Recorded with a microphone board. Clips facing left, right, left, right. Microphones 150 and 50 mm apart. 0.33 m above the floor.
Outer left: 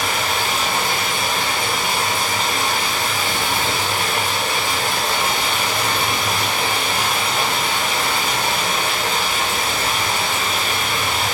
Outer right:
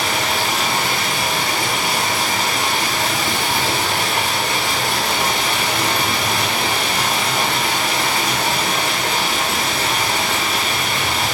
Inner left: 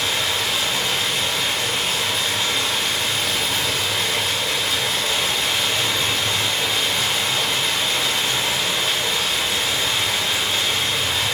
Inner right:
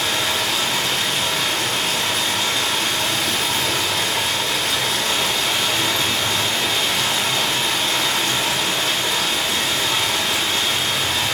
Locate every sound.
0.0 s running water: 90° right, 3 m